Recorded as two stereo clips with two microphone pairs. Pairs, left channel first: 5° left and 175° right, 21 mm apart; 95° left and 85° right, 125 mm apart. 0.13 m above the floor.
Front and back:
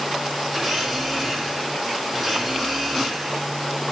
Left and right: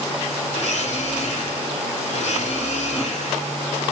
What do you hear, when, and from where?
0.5 s a blender: 115° left, 4 m